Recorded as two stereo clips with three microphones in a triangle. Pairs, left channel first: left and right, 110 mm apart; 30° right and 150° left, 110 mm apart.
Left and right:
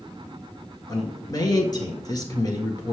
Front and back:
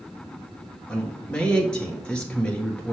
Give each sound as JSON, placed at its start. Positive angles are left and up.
{"t": 0.9, "sound": "a man speaking", "azimuth_deg": 45, "distance_m": 1.6}